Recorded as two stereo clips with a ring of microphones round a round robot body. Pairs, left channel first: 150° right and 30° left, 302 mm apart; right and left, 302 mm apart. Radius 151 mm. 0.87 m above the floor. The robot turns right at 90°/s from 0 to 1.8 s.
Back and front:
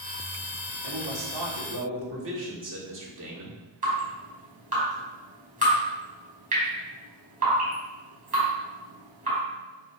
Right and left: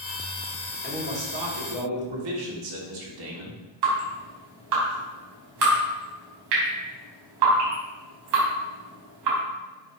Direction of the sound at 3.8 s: 95° left.